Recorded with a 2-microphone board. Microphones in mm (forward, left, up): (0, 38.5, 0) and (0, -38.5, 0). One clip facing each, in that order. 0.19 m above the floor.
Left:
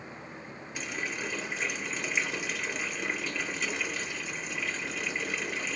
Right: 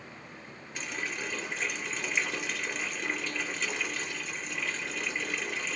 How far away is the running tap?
About 2.5 m.